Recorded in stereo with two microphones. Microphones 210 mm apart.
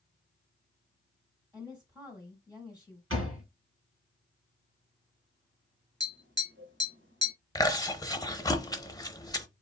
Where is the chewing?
15° left (ahead or behind), 0.7 m.